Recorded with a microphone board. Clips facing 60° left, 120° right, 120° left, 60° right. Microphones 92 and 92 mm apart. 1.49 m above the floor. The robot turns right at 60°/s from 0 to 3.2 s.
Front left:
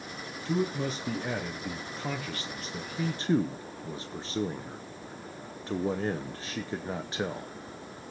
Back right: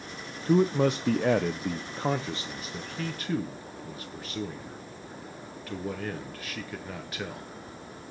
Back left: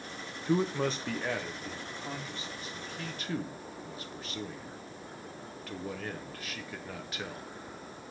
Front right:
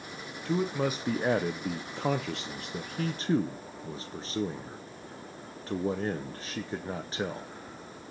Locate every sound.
0.5 s a man speaking: 165° right, 0.7 m; by 7.5 s straight ahead, 0.7 m